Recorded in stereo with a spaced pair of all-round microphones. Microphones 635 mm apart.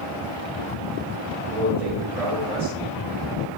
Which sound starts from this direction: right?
A man speaking, at 1.5 s.